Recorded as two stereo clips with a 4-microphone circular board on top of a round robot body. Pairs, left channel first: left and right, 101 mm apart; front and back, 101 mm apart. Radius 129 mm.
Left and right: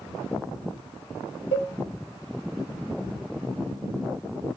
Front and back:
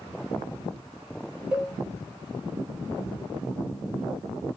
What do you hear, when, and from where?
1.5 s a cowbell: 100° left, 2 m